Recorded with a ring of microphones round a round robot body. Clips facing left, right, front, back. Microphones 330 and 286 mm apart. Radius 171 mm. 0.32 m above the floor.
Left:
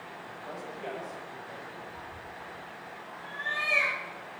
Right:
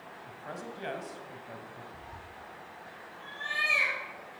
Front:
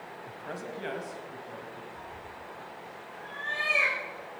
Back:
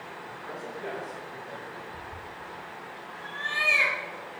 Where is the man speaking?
30° right, 2 m; by 1.8 s 75° right, 2 m.